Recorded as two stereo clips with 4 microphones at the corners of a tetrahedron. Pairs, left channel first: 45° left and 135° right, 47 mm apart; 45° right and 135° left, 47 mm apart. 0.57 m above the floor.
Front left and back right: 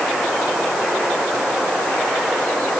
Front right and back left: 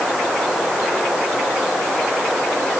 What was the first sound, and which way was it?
Only background noise.